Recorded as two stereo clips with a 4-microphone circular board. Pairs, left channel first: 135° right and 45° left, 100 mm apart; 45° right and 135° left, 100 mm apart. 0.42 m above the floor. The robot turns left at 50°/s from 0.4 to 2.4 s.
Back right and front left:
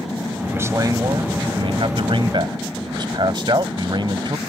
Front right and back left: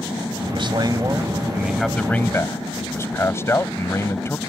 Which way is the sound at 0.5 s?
110° left.